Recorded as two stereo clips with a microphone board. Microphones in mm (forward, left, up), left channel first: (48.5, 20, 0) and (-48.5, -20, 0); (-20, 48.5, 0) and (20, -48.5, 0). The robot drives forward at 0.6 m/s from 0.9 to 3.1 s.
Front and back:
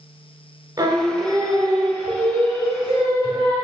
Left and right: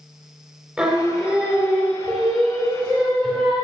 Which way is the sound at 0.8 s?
140° right.